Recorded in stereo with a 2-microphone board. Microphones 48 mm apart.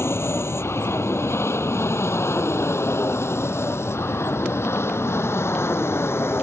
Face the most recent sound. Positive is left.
turn(degrees=60)  # may be behind; listen again after turning